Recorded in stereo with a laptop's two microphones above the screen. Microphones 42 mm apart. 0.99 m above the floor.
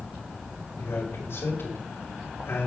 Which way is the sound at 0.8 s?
65° left (ahead or behind).